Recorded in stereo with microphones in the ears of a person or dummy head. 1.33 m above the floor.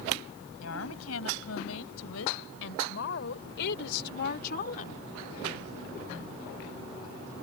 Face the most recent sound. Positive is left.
turn(degrees=45)  # may be behind; listen again after turning